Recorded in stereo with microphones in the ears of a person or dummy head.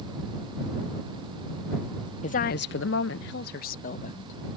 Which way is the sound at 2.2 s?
40° left (ahead or behind).